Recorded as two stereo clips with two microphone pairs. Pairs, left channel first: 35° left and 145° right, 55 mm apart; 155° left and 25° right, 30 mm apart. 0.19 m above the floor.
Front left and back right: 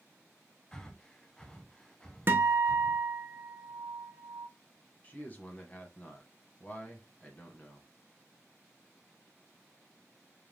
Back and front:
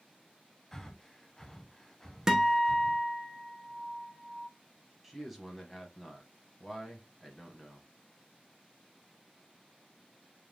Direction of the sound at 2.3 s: 95° right.